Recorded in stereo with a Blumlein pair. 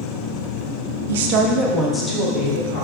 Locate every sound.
1.1 s a woman speaking: 60° right, 1.0 m; by 2.8 s 35° left, 2.5 m